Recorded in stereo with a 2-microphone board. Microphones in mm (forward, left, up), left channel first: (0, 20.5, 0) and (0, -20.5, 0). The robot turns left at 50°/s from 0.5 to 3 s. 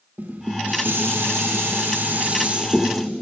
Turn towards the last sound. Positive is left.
turn(degrees=-175)